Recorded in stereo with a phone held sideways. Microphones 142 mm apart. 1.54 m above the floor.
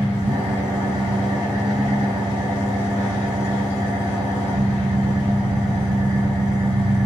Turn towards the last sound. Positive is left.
turn(degrees=-30)  # may be behind; listen again after turning